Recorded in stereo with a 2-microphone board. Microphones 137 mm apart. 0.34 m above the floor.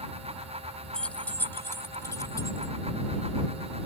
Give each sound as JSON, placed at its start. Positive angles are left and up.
{"t": 0.9, "sound": "keys jangling", "side_deg": 5}